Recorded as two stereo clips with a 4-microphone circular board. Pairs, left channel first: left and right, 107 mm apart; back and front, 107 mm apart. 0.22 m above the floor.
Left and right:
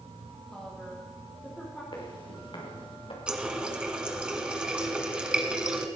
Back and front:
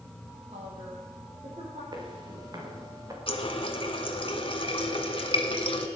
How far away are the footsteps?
About 5 m.